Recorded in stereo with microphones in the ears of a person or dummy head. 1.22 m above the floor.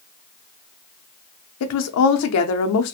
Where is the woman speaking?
75° left (ahead or behind), 0.5 m.